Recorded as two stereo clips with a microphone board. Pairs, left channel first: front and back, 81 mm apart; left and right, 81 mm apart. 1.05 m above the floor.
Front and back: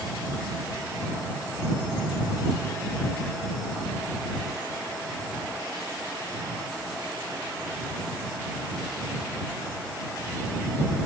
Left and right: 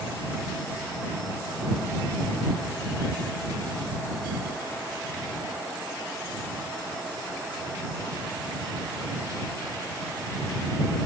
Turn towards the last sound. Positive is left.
No sound to turn to.